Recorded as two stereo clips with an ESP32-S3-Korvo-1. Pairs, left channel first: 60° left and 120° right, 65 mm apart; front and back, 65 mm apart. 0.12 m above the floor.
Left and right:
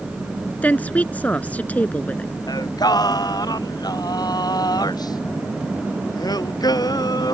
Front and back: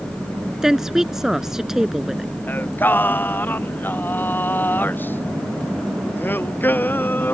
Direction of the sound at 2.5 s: 60° left.